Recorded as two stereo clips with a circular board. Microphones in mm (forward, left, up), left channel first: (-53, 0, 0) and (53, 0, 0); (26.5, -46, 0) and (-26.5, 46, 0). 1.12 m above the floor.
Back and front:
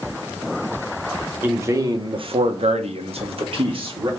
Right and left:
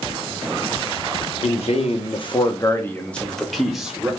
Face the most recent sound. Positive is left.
turn(degrees=40)